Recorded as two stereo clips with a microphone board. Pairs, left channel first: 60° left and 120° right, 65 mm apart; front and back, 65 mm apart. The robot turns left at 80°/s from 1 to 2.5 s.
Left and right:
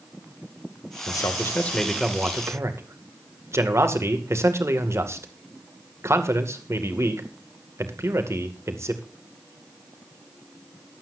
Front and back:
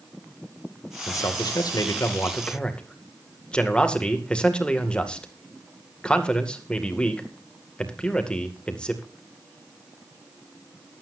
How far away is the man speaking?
About 2 m.